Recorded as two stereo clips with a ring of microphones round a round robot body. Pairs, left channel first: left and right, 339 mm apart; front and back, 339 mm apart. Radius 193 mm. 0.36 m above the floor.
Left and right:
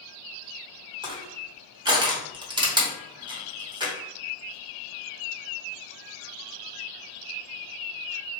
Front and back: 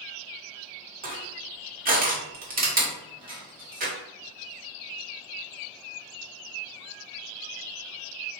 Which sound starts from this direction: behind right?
Crushing, at 1.0 s.